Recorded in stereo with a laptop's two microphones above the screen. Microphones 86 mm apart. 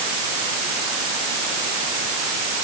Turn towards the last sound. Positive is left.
No sound to turn to.